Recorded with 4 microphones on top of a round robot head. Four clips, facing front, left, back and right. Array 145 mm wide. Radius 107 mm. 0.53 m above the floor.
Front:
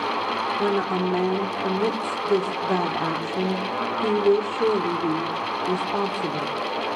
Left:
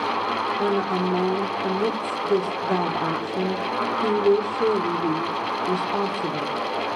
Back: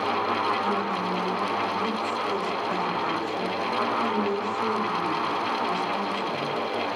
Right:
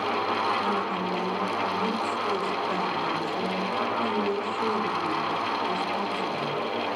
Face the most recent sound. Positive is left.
turn(degrees=40)